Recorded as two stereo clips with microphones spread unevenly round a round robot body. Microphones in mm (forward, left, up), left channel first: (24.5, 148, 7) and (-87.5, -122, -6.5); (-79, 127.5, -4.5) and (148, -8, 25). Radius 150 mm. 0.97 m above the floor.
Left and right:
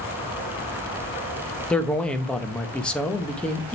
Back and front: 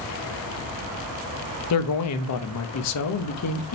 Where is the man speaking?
155° left, 1.1 m.